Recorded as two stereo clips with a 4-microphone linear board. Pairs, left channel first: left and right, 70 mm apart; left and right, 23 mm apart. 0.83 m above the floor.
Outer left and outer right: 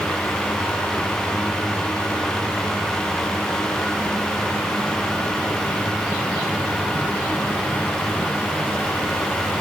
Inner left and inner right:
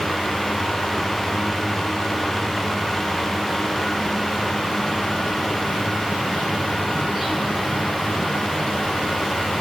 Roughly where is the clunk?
I don't hear a clunk.